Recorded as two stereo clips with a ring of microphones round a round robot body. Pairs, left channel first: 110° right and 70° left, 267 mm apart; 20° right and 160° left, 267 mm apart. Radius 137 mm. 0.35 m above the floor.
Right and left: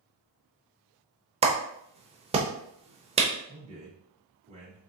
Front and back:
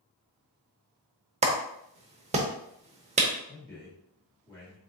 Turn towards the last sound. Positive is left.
turn(degrees=50)